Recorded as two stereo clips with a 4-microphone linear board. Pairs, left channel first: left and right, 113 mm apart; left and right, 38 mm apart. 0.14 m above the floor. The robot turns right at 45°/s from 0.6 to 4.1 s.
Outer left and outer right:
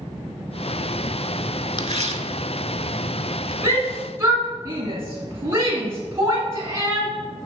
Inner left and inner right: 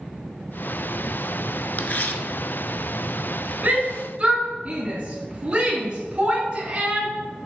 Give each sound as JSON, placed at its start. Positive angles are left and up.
{"t": 1.8, "sound": "tearing paper", "side_deg": 45, "distance_m": 0.6}
{"t": 3.6, "sound": "a shout", "side_deg": -25, "distance_m": 1.6}